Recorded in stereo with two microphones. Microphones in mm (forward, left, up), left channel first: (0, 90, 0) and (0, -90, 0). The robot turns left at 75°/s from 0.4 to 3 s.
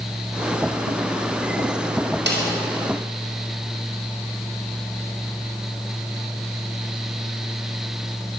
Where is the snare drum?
85° right, 5.5 m; by 2.5 s 70° right (ahead or behind), 5.5 m.